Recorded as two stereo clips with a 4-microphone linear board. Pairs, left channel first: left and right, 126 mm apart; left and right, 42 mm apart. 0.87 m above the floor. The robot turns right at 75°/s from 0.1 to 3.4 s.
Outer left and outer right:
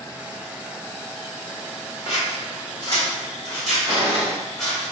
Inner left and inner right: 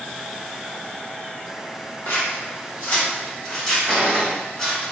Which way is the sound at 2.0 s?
55° left (ahead or behind).